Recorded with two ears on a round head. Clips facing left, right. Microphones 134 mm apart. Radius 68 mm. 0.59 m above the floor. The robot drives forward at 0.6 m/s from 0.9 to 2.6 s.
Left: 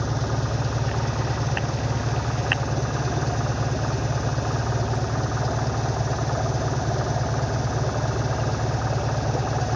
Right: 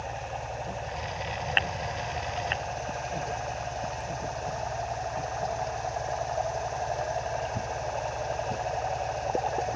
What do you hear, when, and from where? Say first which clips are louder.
0.0 s an engine running: left 7 dB; 75° left (ahead or behind); by 9.8 s 70° left (ahead or behind)